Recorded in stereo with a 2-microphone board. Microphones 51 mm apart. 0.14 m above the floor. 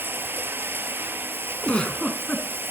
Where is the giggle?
20° left (ahead or behind), 1.1 m.